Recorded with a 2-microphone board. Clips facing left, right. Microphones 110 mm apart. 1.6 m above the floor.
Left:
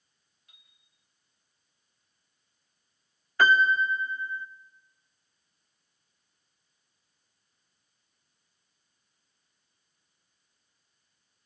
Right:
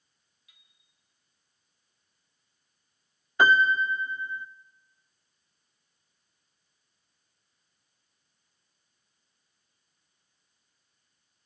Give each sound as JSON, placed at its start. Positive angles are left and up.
{"t": 0.5, "sound": "a chime", "side_deg": 45, "distance_m": 3.0}
{"t": 3.4, "sound": "a piano", "side_deg": -20, "distance_m": 0.8}